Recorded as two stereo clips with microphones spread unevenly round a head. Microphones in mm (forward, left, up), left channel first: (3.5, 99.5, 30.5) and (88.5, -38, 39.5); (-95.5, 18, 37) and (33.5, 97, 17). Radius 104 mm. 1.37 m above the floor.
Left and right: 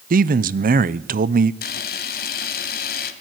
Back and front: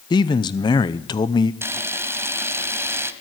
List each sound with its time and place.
0.1 s a man speaking: 80° right, 0.7 m
1.6 s a camera shutter: 110° left, 2.0 m